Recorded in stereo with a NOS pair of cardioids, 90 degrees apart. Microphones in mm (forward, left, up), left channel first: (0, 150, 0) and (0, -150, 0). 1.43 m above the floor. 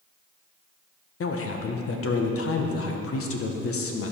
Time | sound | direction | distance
1.2 | a man speaking | 50° left | 1.4 m